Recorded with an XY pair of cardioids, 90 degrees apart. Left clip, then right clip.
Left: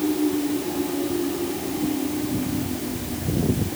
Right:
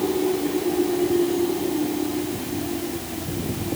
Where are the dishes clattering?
I don't hear dishes clattering.